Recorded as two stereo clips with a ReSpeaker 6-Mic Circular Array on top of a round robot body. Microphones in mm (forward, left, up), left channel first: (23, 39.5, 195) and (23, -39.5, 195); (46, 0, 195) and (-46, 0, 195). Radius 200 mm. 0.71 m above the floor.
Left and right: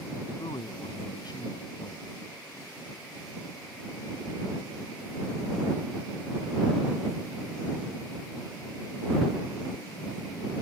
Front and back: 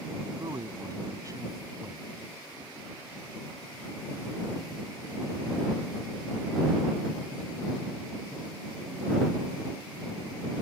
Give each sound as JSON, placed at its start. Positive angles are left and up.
{"t": 0.4, "sound": "a man speaking", "azimuth_deg": 125}